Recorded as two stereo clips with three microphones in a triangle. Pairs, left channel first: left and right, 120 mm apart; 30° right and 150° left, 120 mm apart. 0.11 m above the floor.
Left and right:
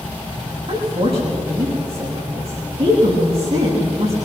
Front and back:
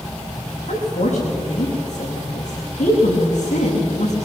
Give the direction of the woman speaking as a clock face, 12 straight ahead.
2 o'clock.